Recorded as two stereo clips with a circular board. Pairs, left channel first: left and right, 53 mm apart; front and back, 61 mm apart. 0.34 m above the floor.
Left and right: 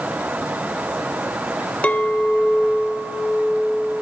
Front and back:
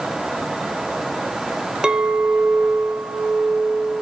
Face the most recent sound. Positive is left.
turn(degrees=120)